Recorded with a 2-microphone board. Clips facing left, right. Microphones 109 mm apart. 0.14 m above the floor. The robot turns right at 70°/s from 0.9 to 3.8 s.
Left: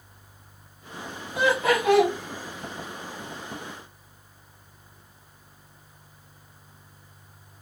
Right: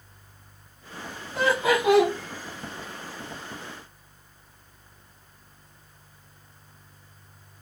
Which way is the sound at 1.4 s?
160° left.